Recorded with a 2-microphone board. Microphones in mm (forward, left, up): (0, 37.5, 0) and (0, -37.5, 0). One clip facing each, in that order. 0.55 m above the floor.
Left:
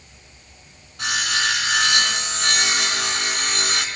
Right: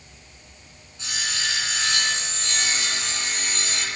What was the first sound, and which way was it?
Sawing, 70° left (ahead or behind).